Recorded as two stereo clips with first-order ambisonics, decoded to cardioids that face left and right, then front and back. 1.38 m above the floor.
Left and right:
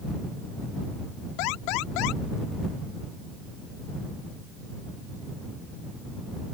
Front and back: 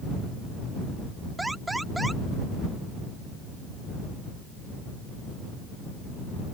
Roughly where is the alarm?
Left.